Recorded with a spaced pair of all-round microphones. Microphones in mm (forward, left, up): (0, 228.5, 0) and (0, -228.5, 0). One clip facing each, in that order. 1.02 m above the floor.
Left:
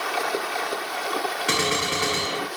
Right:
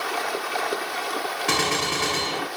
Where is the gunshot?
10° right (ahead or behind), 1.9 m.